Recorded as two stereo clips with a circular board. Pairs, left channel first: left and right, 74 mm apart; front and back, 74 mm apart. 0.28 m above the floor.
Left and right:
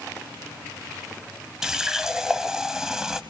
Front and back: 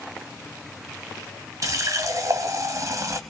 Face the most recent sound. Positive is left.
turn(degrees=-170)